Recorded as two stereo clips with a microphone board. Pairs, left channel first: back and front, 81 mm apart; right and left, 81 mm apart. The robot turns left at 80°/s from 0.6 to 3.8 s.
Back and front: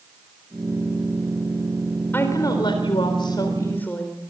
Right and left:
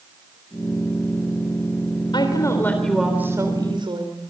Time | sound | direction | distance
2.1 | a woman speaking | 115° right | 3.5 m